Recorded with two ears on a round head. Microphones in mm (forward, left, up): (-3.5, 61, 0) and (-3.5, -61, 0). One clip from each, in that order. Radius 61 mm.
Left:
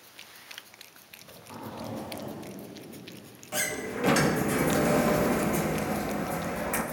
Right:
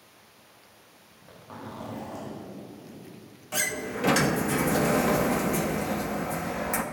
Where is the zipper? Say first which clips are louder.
Right 1 dB; 15° right (ahead or behind), 1.8 m.